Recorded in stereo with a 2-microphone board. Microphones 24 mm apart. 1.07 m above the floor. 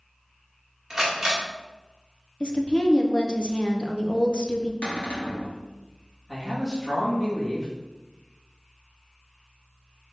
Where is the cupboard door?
75° left (ahead or behind), 1.1 m.